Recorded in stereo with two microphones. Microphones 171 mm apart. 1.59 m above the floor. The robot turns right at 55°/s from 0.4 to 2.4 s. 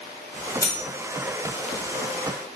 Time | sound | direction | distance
0.6 | cutlery clinking | 20° left (ahead or behind) | 0.7 m